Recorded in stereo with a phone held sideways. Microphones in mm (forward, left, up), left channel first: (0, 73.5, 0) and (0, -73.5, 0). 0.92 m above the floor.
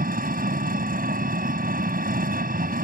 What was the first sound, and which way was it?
An engine running, 80° right.